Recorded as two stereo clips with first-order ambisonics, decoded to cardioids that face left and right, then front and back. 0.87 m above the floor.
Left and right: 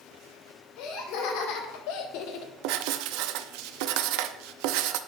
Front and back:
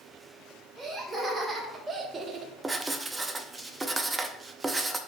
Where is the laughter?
100° left, 2.5 m; by 2.5 s 130° left, 0.8 m.